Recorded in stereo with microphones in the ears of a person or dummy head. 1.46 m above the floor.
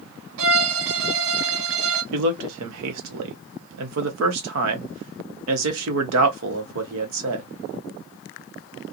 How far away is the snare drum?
I don't hear a snare drum.